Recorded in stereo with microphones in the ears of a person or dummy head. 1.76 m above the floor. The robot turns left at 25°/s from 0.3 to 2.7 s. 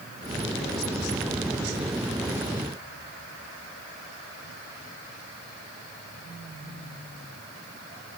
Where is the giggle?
I don't hear a giggle.